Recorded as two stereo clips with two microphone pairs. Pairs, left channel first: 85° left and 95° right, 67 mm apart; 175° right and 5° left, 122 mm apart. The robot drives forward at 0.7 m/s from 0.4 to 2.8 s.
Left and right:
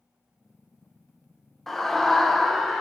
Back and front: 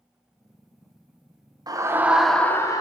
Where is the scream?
5° left, 0.8 m; by 2.8 s 175° left, 0.8 m.